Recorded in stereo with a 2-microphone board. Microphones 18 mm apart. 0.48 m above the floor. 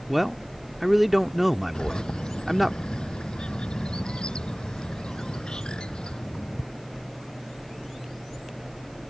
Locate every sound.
0.1 s a man speaking: 10° right (ahead or behind)
1.7 s a bird: 60° left (ahead or behind)